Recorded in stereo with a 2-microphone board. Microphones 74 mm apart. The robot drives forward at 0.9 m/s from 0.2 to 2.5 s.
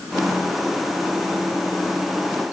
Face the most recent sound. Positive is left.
No sound to turn to.